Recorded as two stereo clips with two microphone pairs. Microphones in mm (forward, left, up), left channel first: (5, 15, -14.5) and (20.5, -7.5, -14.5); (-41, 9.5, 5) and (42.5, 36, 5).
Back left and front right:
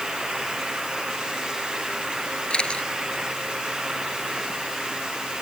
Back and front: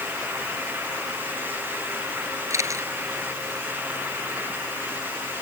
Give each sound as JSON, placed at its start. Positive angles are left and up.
{"t": 2.5, "sound": "a camera shutter", "azimuth_deg": 70}